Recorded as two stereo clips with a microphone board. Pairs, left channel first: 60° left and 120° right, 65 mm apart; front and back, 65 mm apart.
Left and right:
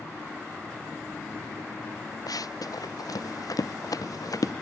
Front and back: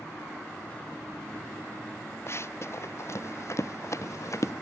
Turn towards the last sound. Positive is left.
turn(degrees=40)